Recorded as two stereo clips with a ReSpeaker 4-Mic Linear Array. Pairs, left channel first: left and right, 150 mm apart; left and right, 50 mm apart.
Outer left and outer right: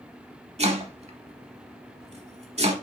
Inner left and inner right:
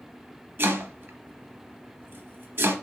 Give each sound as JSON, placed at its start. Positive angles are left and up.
{"t": 0.6, "sound": "chopping", "side_deg": -45, "distance_m": 0.8}